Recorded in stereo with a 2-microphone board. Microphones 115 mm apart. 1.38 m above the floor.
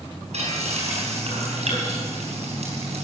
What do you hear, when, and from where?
0.3 s frying: 65° right (ahead or behind), 5 m